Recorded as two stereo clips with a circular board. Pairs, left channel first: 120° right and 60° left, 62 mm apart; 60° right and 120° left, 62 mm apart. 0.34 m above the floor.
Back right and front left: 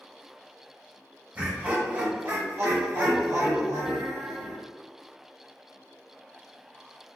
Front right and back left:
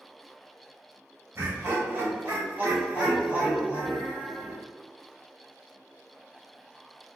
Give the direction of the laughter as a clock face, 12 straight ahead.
8 o'clock.